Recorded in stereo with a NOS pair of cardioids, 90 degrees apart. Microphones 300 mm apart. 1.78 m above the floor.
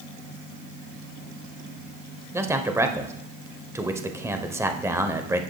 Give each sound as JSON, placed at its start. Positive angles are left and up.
{"t": 2.3, "sound": "a man speaking", "azimuth_deg": -10, "distance_m": 1.1}